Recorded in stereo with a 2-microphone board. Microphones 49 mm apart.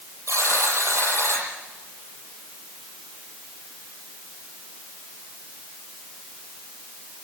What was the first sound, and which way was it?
A buzzer, 75° right (ahead or behind).